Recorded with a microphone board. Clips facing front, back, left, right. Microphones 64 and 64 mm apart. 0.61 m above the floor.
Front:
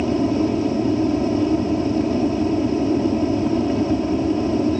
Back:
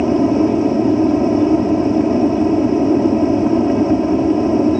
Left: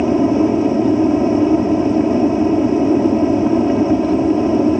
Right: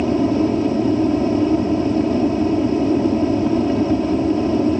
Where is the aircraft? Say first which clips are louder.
Back 6 dB, left 3 dB; 145° left.